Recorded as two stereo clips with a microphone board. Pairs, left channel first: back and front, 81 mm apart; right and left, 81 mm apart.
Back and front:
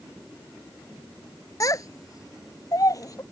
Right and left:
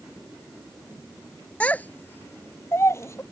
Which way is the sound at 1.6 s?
160° right.